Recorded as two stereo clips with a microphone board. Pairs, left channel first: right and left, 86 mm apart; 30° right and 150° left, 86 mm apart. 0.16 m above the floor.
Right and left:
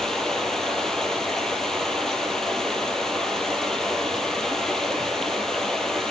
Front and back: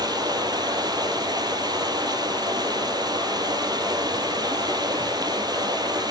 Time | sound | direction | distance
0.0 | running water | 175° right | 3 m